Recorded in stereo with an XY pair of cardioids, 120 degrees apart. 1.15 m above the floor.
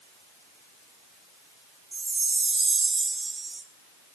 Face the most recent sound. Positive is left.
turn(degrees=-20)